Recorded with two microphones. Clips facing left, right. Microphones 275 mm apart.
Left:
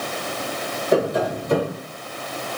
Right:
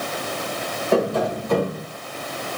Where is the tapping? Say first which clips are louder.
Even; 20° left (ahead or behind), 3 m.